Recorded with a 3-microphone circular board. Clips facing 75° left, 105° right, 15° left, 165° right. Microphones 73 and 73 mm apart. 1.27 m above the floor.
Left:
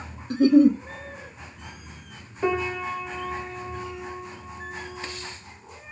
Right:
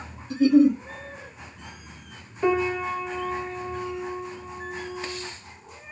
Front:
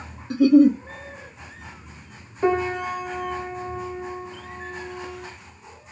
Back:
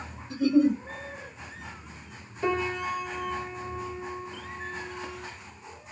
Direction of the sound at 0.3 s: 35° left.